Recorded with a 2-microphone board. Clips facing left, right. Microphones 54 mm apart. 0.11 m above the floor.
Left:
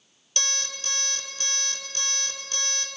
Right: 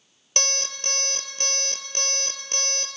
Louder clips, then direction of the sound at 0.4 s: Right 2 dB; 55° right (ahead or behind).